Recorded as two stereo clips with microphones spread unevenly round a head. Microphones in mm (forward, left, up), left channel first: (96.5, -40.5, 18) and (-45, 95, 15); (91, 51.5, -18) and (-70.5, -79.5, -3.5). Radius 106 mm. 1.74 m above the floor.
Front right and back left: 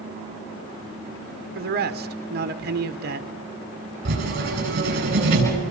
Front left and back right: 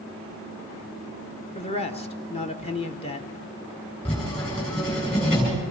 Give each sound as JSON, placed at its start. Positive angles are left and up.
{"t": 1.6, "sound": "a man speaking", "azimuth_deg": 100, "distance_m": 1.3}
{"t": 4.0, "sound": "writing", "azimuth_deg": 105, "distance_m": 9.0}